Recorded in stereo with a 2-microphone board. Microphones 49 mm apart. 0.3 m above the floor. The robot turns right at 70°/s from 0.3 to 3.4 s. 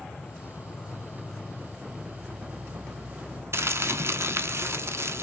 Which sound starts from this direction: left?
An insect, at 0.0 s.